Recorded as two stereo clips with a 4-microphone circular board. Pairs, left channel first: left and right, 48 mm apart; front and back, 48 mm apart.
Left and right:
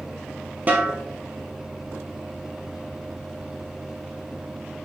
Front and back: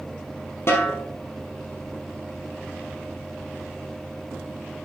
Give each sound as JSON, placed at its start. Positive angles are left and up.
{"t": 0.7, "sound": "a snare drum", "azimuth_deg": -35, "distance_m": 2.5}